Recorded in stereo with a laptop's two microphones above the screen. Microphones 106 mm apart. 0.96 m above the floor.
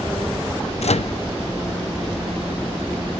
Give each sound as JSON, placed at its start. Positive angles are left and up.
{"t": 0.8, "sound": "a microwave", "side_deg": 80}